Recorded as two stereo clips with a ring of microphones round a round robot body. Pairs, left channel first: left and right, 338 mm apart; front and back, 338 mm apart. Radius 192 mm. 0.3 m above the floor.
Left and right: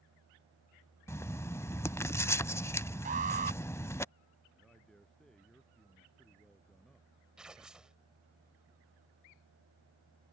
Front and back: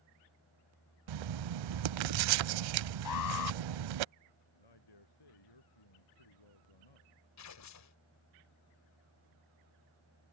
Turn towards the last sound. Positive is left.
turn(degrees=-5)